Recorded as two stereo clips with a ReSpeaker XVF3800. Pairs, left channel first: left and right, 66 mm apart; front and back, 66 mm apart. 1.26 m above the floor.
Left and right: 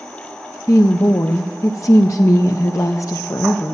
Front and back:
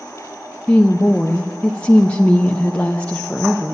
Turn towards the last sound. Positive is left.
turn(degrees=65)